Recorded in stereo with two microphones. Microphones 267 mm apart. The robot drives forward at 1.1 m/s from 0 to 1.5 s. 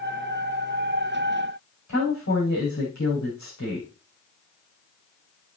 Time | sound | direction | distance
1.9 | a woman speaking | 80° left | 6.5 m